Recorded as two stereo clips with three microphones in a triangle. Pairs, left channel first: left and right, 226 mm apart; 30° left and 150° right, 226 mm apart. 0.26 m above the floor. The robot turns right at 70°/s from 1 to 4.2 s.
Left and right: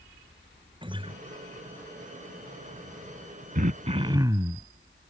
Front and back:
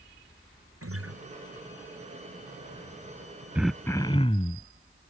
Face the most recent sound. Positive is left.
turn(degrees=-25)